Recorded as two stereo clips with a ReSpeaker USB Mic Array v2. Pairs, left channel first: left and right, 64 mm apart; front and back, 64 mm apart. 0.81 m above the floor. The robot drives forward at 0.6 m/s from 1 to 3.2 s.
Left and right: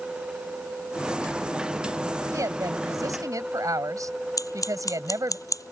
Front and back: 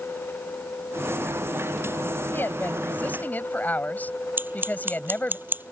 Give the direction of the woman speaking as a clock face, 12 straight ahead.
2 o'clock.